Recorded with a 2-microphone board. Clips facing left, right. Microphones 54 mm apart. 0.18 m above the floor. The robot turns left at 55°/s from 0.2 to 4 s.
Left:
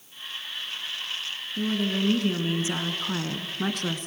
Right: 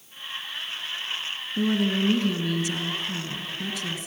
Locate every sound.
1.6 s a woman speaking: 155° right, 1.9 m; by 4.1 s 70° left, 1.9 m